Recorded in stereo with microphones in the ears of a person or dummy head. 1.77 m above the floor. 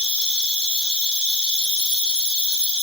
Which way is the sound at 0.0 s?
30° left (ahead or behind).